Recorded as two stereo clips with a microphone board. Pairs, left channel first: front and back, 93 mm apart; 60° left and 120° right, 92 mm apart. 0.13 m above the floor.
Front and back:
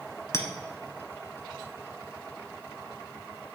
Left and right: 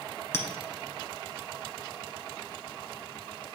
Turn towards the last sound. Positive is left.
turn(degrees=25)